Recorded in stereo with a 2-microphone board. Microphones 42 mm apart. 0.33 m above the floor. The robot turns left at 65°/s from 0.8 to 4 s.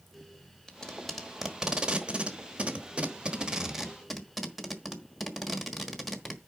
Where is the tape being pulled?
15° left (ahead or behind), 1.2 m; by 6.4 s centre (ahead or behind), 1.2 m.